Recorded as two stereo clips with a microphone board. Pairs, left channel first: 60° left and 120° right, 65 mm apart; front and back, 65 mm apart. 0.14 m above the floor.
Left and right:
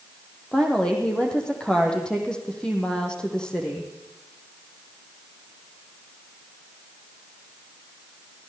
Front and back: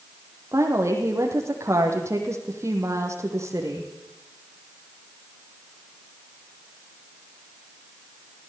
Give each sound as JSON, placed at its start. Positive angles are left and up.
{"t": 0.5, "sound": "a woman speaking", "azimuth_deg": 135, "distance_m": 4.5}